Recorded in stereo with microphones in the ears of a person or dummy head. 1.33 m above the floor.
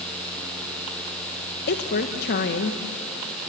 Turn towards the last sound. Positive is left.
turn(degrees=55)  # may be behind; listen again after turning